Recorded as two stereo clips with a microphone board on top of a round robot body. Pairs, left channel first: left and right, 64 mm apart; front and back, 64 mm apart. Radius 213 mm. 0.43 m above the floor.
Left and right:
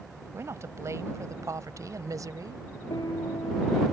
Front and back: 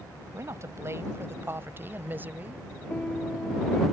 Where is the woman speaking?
135° right; by 2.7 s 115° right.